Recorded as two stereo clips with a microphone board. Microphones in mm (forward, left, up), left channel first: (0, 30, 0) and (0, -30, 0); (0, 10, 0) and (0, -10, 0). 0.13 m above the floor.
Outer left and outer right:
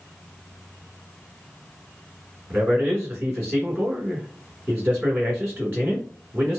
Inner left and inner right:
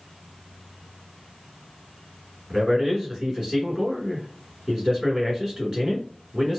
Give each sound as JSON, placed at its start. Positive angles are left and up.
{"t": 2.5, "sound": "a man speaking", "side_deg": -35, "distance_m": 1.7}